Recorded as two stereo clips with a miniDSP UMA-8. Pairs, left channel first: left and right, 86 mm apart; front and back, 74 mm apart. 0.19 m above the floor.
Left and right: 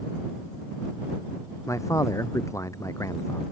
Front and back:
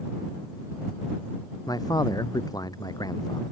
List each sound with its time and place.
1.7 s a man speaking: 35° left